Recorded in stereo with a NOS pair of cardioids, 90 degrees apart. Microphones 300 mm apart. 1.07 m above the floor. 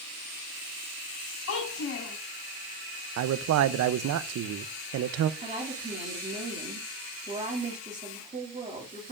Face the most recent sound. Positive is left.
turn(degrees=-25)